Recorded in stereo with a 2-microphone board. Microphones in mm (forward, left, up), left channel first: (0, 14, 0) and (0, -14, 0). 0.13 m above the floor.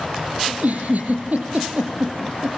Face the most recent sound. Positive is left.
turn(degrees=-70)  # may be behind; listen again after turning